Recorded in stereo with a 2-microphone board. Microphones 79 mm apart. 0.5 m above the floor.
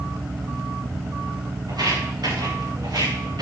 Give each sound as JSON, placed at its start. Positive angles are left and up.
{"t": 1.7, "sound": "footsteps", "side_deg": -65, "distance_m": 8.0}